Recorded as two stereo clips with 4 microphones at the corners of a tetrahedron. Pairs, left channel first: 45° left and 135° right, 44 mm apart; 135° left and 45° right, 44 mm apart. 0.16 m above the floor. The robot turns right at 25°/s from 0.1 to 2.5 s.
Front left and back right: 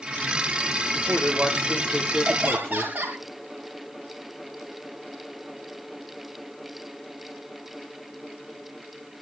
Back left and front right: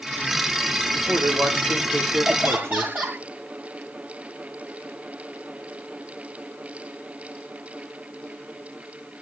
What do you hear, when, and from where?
0.9 s a man speaking: 65° right, 5.5 m; by 3.2 s 30° right, 5.5 m
2.2 s laughter: 90° right, 3 m; by 3.2 s 80° right, 3 m